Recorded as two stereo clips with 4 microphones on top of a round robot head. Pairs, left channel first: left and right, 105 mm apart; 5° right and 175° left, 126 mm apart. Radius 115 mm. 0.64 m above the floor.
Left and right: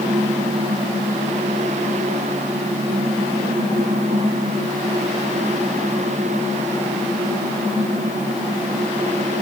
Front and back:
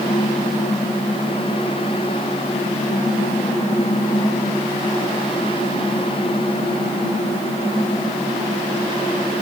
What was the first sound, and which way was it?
Only background noise.